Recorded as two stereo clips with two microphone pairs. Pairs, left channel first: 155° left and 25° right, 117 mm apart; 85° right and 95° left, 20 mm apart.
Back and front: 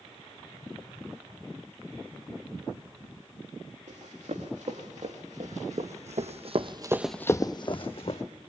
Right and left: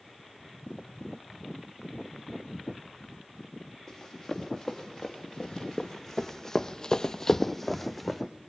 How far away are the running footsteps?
About 4 m.